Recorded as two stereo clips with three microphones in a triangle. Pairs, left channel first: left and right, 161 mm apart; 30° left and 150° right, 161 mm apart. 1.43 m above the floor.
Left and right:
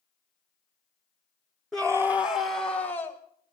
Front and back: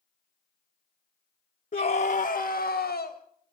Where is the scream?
Straight ahead, 0.6 m; by 3.2 s 45° left, 2 m.